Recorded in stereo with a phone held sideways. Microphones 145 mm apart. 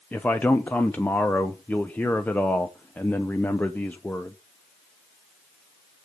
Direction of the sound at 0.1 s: 10° left (ahead or behind).